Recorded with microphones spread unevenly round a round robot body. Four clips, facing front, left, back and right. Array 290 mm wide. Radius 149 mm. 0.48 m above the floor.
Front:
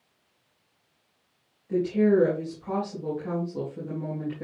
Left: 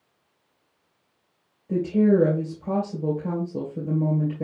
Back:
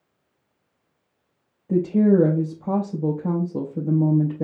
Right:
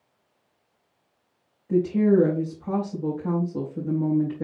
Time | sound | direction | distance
1.7 | a woman speaking | 165° left | 2.5 m